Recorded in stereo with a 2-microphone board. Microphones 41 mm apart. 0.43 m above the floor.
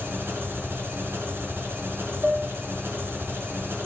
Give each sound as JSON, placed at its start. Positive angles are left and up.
{"t": 0.0, "sound": "an engine running", "side_deg": -75, "distance_m": 3.5}
{"t": 2.2, "sound": "dishes clattering", "side_deg": -20, "distance_m": 1.6}